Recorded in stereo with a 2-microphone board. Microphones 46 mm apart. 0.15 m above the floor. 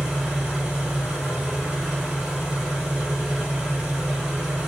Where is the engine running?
10° right (ahead or behind), 1.8 m.